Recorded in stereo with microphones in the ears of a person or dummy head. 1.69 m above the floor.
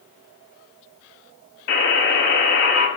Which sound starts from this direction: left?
A buzzer, at 1.7 s.